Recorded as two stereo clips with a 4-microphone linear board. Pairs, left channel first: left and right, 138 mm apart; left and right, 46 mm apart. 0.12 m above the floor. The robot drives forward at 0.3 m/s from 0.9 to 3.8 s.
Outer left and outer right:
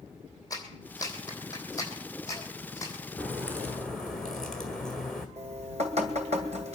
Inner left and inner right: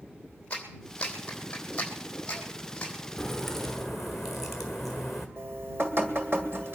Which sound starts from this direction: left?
A clap, at 0.5 s.